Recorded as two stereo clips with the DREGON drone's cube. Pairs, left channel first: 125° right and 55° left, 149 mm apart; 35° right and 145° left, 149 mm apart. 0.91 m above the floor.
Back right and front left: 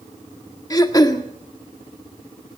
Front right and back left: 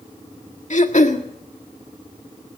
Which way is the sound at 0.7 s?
65° right.